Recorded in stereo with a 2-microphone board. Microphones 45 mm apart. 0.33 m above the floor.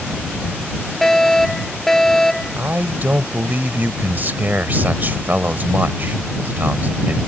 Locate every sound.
1.0 s a fire alarm: 5° left (ahead or behind)
2.6 s a man speaking: 40° right (ahead or behind)